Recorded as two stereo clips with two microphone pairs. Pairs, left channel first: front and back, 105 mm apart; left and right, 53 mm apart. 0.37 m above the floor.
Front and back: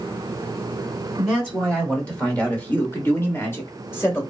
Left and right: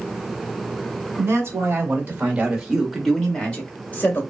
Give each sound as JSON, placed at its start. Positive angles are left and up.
{"t": 1.2, "sound": "a man speaking", "azimuth_deg": -85, "distance_m": 1.3}